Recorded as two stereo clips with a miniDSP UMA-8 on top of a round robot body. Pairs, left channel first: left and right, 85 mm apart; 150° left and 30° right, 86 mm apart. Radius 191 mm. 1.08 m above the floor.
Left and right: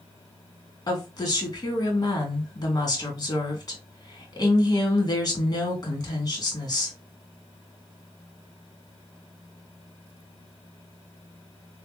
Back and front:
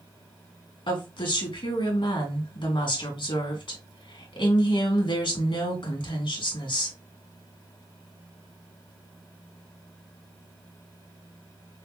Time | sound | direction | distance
0.9 | a woman speaking | 135° left | 3 m